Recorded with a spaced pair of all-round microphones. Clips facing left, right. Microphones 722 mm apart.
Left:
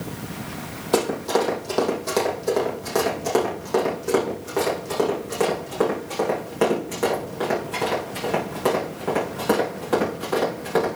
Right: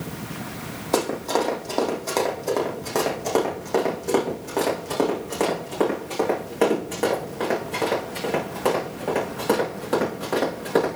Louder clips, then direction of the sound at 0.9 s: Left 2 dB; 45° left (ahead or behind).